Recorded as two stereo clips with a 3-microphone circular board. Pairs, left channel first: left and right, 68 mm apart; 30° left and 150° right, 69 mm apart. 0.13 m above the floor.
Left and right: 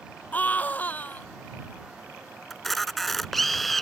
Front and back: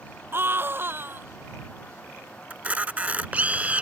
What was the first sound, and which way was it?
A scream, 155° left.